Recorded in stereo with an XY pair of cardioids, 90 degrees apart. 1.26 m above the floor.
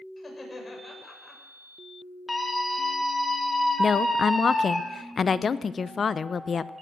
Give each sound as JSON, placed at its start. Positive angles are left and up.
{"t": 0.2, "sound": "laughter", "azimuth_deg": 25, "distance_m": 6.0}
{"t": 2.3, "sound": "a scream", "azimuth_deg": 20, "distance_m": 2.0}
{"t": 3.8, "sound": "a woman speaking", "azimuth_deg": 45, "distance_m": 0.6}